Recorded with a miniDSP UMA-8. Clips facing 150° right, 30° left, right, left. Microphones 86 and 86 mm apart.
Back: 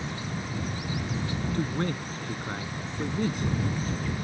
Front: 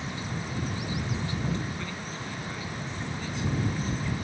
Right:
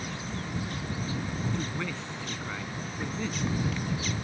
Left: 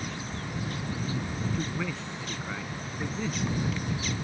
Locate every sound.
1.5 s a man speaking: 175° left